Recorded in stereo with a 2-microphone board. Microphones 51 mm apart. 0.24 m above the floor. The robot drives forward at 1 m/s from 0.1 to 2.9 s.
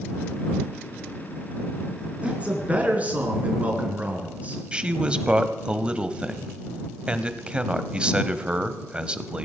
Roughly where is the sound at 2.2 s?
Right.